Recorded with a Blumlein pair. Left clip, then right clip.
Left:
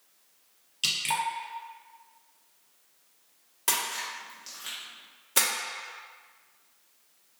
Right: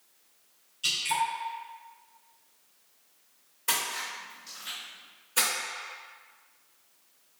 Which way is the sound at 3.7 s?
50° left.